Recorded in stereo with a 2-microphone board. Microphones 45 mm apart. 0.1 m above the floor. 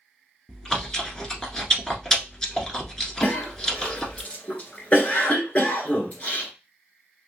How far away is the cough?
About 1.7 m.